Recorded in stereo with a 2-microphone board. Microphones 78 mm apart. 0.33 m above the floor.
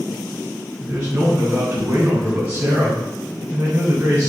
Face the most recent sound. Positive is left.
turn(degrees=-45)  # may be behind; listen again after turning